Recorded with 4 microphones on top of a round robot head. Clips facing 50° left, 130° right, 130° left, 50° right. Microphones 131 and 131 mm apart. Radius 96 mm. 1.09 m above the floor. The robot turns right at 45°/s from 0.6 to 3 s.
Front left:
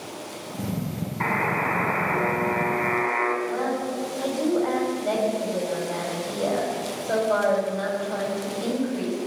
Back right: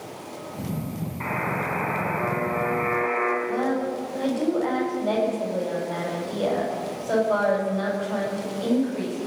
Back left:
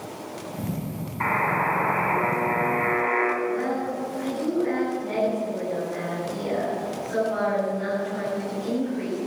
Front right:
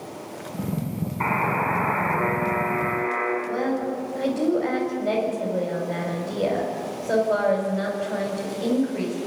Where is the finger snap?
I don't hear a finger snap.